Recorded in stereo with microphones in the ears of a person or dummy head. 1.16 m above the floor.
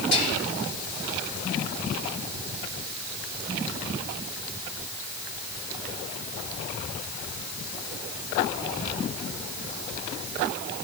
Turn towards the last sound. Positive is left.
turn(degrees=80)